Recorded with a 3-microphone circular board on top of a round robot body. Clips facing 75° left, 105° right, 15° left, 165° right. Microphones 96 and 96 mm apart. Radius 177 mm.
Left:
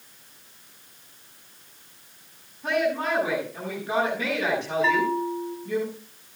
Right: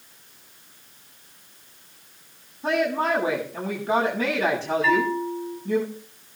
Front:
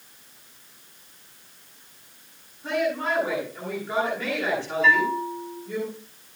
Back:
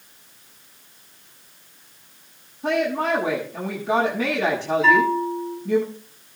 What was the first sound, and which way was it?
A woman speaking, 165° right.